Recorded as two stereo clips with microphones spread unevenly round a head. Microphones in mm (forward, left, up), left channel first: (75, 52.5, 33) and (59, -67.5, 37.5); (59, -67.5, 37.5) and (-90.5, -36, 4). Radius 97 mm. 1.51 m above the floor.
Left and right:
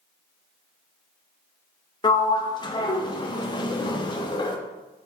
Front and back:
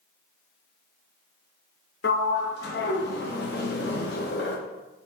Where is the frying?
I don't hear frying.